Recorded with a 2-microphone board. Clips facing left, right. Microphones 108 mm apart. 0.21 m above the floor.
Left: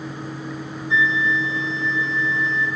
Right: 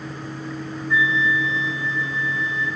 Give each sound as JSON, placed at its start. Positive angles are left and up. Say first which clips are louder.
{"t": 0.9, "sound": "a flute", "louder": "even", "side_deg": 75, "distance_m": 9.0}